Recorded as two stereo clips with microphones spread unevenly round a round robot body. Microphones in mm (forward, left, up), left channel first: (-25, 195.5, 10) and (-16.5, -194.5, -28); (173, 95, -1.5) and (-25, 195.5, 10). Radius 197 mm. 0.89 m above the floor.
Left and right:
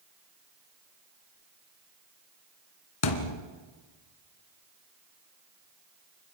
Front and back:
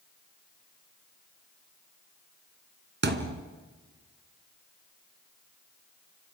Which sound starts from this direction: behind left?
A thud, at 3.0 s.